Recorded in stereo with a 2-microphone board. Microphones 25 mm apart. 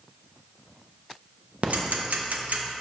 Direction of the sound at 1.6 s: 65° right (ahead or behind).